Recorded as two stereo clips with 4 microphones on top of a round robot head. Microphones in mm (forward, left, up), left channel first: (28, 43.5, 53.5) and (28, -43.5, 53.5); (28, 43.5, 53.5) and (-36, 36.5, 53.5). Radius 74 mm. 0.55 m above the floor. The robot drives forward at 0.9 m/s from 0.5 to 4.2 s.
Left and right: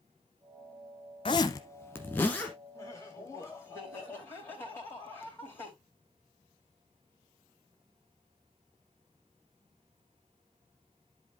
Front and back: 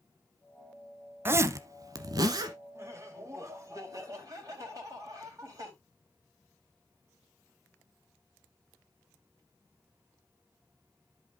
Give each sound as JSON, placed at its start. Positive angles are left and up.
{"t": 1.2, "sound": "a zipper", "azimuth_deg": 135, "distance_m": 0.6}
{"t": 2.8, "sound": "laughter", "azimuth_deg": 145, "distance_m": 3.5}